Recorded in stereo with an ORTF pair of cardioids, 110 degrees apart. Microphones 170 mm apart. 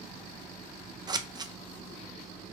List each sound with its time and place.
1.1 s scissors: 25° right, 0.6 m